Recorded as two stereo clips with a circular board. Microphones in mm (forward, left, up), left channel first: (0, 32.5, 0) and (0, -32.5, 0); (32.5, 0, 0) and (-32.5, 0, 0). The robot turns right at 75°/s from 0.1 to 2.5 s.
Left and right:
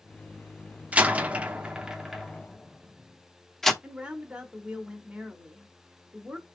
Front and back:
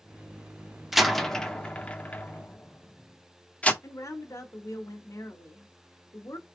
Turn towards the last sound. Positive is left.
turn(degrees=-20)